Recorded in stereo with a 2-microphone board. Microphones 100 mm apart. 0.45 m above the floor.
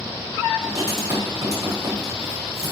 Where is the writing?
30° right (ahead or behind), 4 m.